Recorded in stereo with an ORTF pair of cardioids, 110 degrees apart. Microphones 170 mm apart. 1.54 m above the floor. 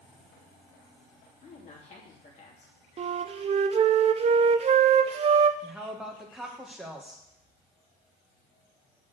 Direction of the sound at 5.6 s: Straight ahead.